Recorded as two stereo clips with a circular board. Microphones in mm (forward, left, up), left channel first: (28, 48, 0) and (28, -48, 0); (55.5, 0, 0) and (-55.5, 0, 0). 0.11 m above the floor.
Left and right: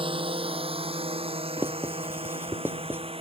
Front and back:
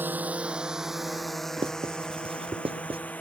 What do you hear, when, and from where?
0.0 s a drone: 110° right; by 3.2 s 75° right
1.6 s writing: 155° right